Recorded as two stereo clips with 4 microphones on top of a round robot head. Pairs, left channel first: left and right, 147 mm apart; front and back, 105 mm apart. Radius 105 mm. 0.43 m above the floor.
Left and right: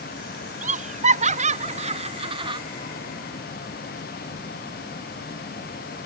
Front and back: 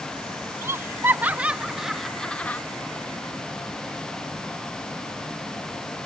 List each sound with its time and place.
0.6 s laughter: 115° right; by 2.6 s 65° right